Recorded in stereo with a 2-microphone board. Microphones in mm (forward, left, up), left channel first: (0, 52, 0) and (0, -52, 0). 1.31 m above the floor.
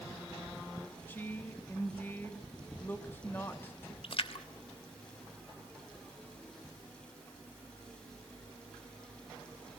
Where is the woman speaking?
20° left (ahead or behind), 2.5 m.